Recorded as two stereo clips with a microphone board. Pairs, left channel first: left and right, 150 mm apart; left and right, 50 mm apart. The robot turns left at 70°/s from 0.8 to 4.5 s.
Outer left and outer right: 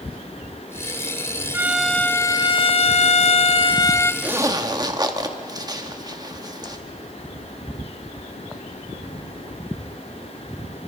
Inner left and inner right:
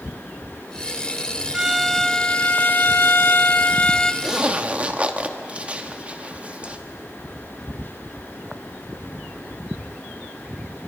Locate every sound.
1.5 s a violin: 160° right, 0.5 m; by 4.1 s 20° left, 0.5 m
4.2 s a zipper: 10° right (ahead or behind), 1.2 m; by 6.8 s 25° right (ahead or behind), 1.2 m